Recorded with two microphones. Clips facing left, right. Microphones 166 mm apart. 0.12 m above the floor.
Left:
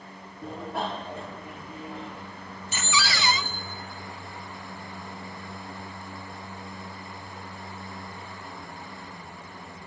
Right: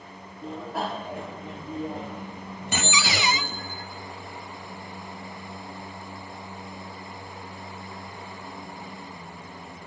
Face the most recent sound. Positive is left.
turn(degrees=-15)  # may be behind; listen again after turning